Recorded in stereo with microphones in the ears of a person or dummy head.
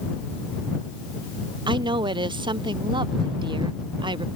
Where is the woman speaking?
25° right (ahead or behind).